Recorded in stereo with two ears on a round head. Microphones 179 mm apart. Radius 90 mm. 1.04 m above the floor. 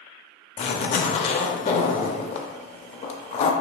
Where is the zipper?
35° left (ahead or behind), 0.6 m.